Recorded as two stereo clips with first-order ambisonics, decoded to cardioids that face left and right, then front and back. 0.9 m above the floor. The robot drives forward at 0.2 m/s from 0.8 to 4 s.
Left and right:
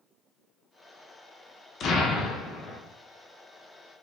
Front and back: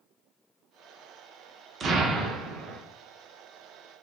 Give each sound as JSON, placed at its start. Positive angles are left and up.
{"t": 1.8, "sound": "an explosion", "azimuth_deg": 130, "distance_m": 0.5}